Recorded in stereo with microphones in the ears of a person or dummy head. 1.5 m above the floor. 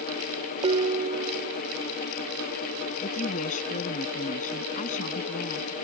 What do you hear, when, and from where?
0.6 s dishes clattering: 30° right (ahead or behind)
3.0 s a woman speaking: 40° left (ahead or behind)